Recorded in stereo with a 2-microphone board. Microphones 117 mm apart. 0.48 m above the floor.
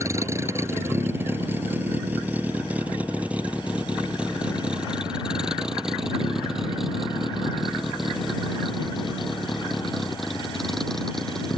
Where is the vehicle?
25° right (ahead or behind); by 11.6 s 5° left (ahead or behind).